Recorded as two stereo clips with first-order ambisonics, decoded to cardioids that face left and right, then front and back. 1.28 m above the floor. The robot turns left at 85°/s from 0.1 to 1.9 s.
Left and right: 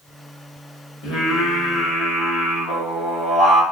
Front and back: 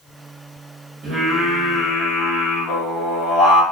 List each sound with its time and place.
1.0 s singing: 120° left, 1.2 m; by 3.6 s 45° left, 1.2 m